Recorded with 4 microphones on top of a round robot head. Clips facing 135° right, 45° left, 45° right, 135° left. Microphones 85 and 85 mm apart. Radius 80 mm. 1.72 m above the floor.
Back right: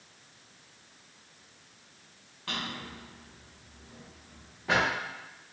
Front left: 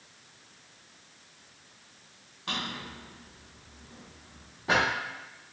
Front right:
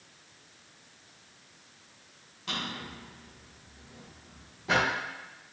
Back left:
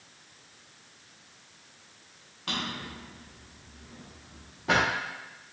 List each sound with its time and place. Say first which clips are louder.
2.5 s a drawer: front left 1 dB, back left 2 dB; 110° left, 0.9 m